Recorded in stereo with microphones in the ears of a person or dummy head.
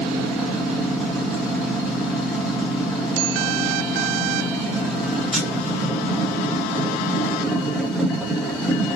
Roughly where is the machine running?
Centre.